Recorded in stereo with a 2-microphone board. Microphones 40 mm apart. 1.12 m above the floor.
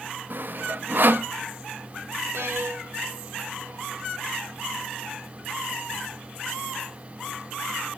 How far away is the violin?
About 1.1 m.